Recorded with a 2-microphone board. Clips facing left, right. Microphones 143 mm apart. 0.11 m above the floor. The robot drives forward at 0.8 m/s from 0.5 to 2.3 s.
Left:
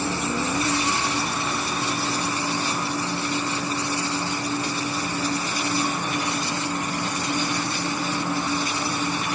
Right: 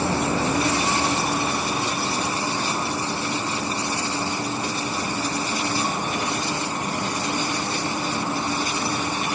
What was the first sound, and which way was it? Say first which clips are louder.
An insect: right 3 dB; 60° right (ahead or behind).